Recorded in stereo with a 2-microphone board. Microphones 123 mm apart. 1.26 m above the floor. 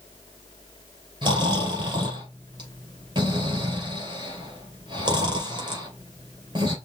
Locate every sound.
1.2 s snoring: 40° right (ahead or behind), 2.5 m